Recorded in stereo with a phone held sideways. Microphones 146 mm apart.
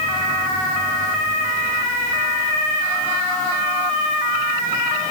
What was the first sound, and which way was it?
Only background noise.